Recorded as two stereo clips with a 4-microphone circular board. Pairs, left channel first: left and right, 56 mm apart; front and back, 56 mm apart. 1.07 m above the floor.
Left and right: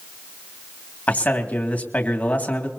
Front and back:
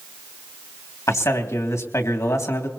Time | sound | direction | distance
1.1 | a man speaking | 25° left | 2.5 m